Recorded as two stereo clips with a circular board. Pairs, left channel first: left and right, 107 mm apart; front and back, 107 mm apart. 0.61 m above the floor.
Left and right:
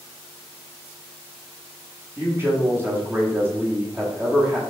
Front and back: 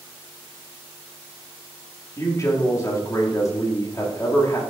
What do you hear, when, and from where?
2.2 s a man speaking: 35° right, 1.2 m